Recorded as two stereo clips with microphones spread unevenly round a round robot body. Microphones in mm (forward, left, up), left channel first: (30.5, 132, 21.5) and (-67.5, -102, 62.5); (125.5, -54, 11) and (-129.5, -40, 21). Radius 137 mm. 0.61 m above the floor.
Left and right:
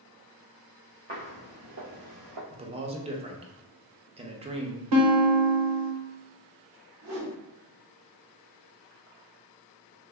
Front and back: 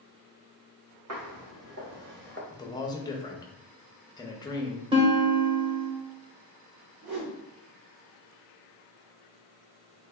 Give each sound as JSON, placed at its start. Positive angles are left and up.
{"t": 1.1, "sound": "footsteps", "azimuth_deg": -165, "distance_m": 1.6}
{"t": 2.5, "sound": "a man speaking", "azimuth_deg": -55, "distance_m": 0.6}
{"t": 4.9, "sound": "a guitar", "azimuth_deg": -110, "distance_m": 0.8}
{"t": 7.0, "sound": "a whoosh", "azimuth_deg": -140, "distance_m": 1.3}